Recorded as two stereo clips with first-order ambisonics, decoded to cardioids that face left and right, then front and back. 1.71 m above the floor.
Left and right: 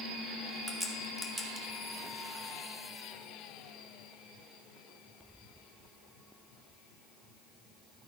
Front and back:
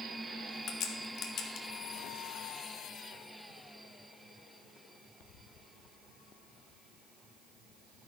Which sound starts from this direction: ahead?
A crack, at 0.7 s.